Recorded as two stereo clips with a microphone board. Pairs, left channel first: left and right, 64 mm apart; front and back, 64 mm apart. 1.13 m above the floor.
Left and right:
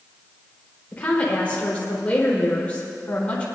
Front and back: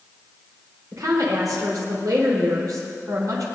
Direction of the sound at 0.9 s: 160° left.